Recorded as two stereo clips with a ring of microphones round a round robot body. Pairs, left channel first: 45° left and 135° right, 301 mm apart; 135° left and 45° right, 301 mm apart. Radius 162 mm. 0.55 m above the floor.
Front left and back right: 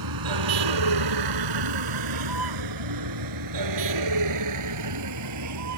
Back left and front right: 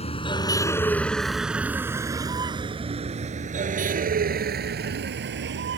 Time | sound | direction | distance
0.0 | a vehicle | 155° right | ?